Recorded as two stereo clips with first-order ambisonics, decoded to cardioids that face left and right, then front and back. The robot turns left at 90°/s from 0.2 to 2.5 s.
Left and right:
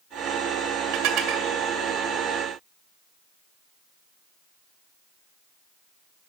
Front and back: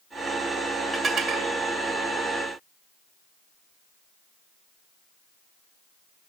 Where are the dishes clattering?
100° right, 1.9 m; by 1.5 s 150° right, 1.9 m.